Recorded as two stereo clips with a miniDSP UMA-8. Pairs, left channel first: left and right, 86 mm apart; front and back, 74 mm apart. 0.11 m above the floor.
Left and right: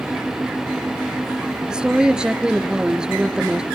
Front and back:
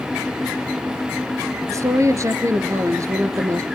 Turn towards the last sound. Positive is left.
turn(degrees=-165)